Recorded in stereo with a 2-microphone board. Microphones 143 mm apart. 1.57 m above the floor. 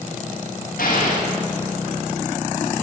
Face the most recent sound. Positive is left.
turn(degrees=75)  # may be behind; listen again after turning